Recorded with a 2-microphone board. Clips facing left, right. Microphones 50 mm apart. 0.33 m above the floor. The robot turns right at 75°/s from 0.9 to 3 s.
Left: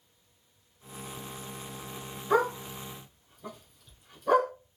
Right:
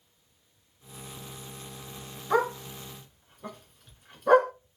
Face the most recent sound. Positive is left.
turn(degrees=-45)  # may be behind; listen again after turning